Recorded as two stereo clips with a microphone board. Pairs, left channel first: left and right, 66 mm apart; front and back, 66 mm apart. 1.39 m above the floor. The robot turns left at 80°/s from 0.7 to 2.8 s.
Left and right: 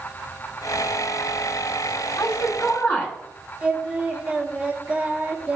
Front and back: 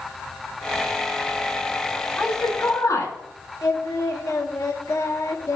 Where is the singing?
20° right, 1.4 m.